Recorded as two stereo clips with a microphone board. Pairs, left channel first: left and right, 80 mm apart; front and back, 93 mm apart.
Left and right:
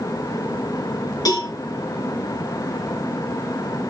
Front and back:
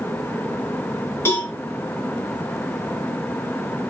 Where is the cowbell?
60° left, 3 m.